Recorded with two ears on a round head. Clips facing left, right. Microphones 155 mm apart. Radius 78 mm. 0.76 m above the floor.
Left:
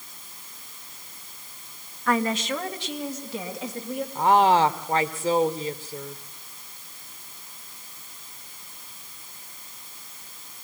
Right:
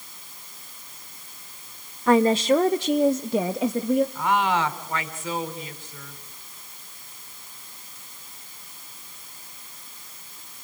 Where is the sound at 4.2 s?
30° left (ahead or behind), 2 m.